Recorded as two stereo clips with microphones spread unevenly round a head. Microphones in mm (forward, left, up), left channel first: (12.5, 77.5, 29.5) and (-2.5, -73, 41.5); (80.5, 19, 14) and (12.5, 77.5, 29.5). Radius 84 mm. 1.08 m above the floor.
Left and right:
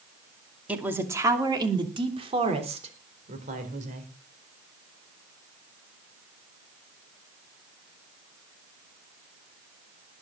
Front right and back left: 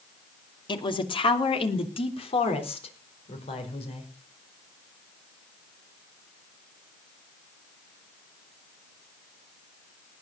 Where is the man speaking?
15° right, 2.5 m; by 4.1 s 55° right, 4.5 m.